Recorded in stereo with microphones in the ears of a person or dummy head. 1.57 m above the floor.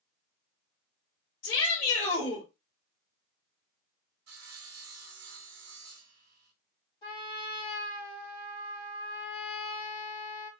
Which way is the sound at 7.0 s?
35° left (ahead or behind).